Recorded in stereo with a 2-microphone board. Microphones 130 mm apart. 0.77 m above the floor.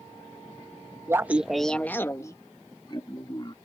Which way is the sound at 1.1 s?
20° right (ahead or behind).